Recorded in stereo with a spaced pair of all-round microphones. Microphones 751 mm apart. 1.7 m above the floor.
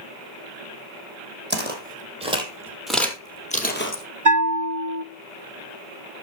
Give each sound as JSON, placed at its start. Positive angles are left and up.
{"t": 1.5, "sound": "footsteps", "side_deg": -15, "distance_m": 3.0}
{"t": 4.2, "sound": "a bell", "side_deg": -25, "distance_m": 0.8}